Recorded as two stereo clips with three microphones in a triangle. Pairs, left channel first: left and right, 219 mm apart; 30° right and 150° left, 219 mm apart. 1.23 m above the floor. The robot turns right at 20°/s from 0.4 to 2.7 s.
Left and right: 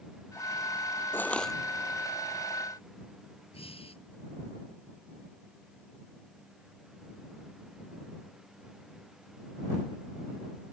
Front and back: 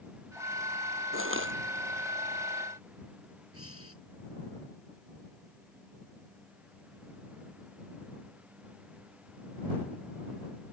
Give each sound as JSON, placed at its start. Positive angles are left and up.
{"t": 1.1, "sound": "crushing", "azimuth_deg": 170}
{"t": 3.5, "sound": "breathing", "azimuth_deg": 155}